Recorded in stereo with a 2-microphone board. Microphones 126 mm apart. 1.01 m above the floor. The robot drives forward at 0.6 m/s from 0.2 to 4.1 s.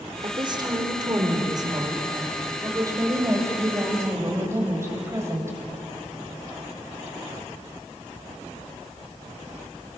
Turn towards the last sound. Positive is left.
turn(degrees=-20)  # may be behind; listen again after turning